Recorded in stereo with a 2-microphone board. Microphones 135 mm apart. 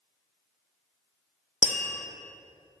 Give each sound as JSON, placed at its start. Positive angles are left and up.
{"t": 1.6, "sound": "tapping", "side_deg": 65, "distance_m": 1.1}